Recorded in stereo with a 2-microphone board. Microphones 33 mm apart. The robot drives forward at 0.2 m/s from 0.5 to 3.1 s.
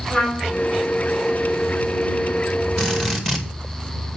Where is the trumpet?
55° left (ahead or behind), 5.5 m.